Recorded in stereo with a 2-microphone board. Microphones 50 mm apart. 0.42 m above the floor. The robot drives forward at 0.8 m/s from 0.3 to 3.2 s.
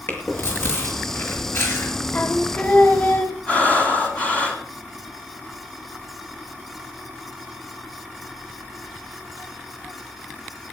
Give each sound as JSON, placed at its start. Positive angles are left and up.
{"t": 0.1, "sound": "chewing", "side_deg": 50, "distance_m": 6.0}
{"t": 2.1, "sound": "singing", "side_deg": 40, "distance_m": 2.5}
{"t": 3.5, "sound": "breathing", "side_deg": 25, "distance_m": 3.0}